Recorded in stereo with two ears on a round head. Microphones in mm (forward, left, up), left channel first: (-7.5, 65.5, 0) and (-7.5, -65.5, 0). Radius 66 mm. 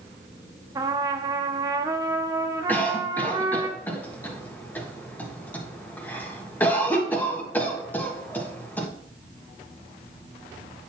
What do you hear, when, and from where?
0.8 s a trumpet: 25° right (ahead or behind), 0.6 m
2.7 s a cough: 10° left (ahead or behind), 1.3 m